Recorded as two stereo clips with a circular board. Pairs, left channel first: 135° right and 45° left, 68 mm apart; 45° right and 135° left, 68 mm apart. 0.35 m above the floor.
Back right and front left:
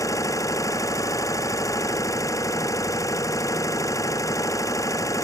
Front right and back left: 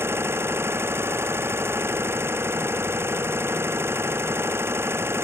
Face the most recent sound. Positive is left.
turn(degrees=-170)